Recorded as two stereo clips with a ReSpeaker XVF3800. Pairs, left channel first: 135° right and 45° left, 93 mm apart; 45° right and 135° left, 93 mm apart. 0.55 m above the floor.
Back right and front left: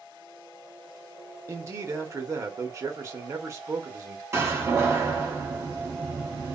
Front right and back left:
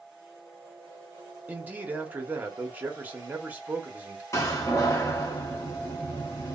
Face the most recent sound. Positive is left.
turn(degrees=0)